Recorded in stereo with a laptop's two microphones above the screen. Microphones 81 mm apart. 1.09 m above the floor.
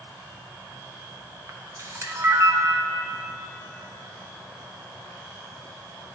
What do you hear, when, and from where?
1.5 s a camera shutter: 40° right (ahead or behind), 0.8 m